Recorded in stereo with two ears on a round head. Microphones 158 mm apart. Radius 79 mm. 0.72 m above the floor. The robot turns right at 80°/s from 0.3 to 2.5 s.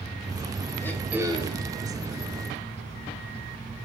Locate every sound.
0.8 s throat clearing: 165° left, 1.2 m; by 1.7 s 125° right, 1.2 m